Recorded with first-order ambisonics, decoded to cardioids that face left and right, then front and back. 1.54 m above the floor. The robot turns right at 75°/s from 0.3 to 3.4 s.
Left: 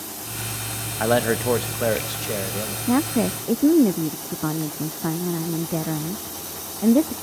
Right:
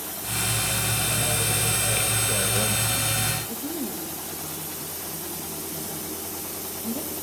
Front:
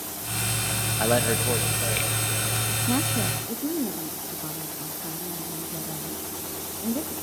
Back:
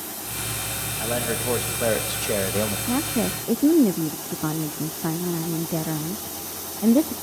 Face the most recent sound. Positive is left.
turn(degrees=125)